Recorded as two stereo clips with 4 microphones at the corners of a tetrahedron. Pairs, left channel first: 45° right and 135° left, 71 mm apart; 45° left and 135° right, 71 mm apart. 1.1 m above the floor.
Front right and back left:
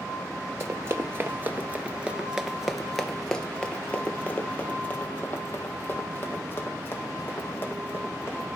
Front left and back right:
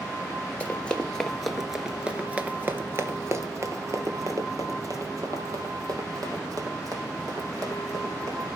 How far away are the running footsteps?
About 1.4 m.